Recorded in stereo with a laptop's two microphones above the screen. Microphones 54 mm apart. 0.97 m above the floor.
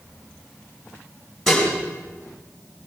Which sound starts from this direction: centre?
Dishes clattering, at 1.5 s.